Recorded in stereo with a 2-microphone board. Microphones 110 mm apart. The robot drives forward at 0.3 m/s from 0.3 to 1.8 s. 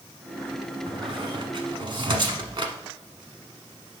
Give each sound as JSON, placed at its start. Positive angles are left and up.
{"t": 0.9, "sound": "a squeak", "side_deg": -50, "distance_m": 0.9}